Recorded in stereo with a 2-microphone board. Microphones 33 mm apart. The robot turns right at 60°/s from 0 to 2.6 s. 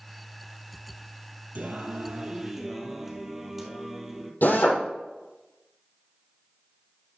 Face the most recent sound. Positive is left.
turn(degrees=70)  # may be behind; listen again after turning